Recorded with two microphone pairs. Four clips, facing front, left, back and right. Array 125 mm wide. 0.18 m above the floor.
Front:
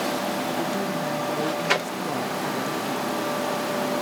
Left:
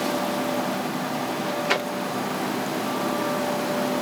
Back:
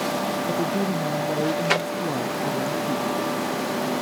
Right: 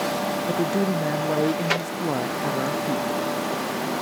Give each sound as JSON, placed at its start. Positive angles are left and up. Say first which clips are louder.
{"t": 0.5, "sound": "a woman speaking", "louder": "right 3 dB, back 2 dB", "azimuth_deg": -100}